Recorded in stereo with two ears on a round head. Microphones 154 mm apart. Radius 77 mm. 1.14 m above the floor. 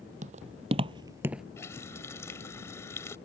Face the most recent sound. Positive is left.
turn(degrees=15)  # may be behind; listen again after turning